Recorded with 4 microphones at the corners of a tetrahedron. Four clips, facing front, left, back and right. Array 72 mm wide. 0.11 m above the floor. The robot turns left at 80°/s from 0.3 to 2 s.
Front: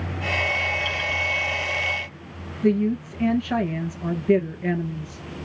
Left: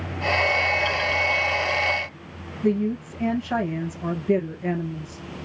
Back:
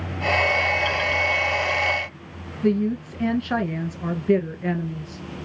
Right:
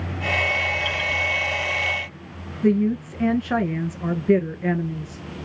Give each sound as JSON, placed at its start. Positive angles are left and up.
{"t": 2.6, "sound": "a woman speaking", "azimuth_deg": -105, "distance_m": 1.2}